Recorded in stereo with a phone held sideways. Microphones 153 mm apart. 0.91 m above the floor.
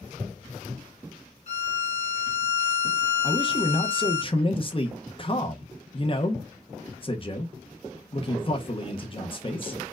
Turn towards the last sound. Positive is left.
turn(degrees=35)  # may be behind; listen again after turning